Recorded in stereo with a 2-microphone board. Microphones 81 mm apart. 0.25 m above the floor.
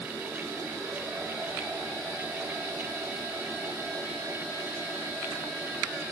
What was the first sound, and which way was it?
Only background noise.